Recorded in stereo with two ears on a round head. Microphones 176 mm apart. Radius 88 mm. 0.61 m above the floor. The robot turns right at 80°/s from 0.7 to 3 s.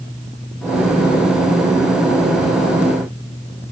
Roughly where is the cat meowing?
No cat meowing in this recording.